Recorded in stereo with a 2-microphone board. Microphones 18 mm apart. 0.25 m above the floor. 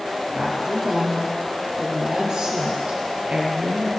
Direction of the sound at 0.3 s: 40° right (ahead or behind).